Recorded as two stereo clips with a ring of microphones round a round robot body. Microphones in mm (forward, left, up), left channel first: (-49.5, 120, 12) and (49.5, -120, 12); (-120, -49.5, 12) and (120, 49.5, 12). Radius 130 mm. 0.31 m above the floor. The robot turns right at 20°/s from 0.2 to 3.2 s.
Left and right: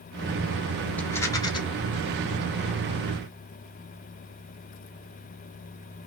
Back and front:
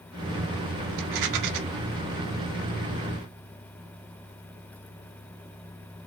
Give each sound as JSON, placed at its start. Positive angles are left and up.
{"t": 1.0, "sound": "a rattle", "azimuth_deg": 25, "distance_m": 1.1}